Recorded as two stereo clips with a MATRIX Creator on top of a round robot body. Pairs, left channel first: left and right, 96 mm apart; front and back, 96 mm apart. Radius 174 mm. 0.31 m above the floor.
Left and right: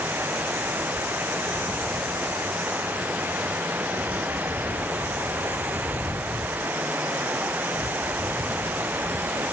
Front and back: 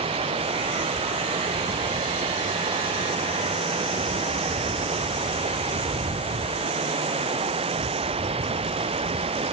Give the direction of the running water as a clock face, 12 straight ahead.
5 o'clock.